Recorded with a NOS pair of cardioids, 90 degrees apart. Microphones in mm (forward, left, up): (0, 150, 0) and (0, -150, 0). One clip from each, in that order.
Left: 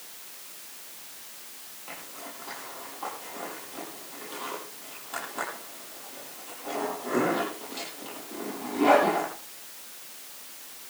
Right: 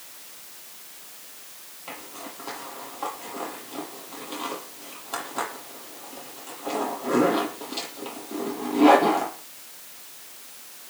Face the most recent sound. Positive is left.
turn(degrees=-45)